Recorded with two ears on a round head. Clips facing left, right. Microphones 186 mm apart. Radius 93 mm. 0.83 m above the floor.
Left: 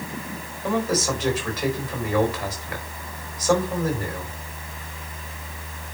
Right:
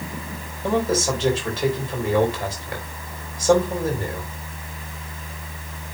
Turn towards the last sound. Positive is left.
turn(degrees=-25)  # may be behind; listen again after turning